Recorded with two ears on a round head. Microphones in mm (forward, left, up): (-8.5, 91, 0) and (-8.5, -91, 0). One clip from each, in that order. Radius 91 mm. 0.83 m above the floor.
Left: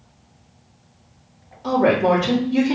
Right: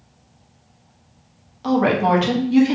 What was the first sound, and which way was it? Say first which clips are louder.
A woman speaking: left 1 dB; 50° right (ahead or behind).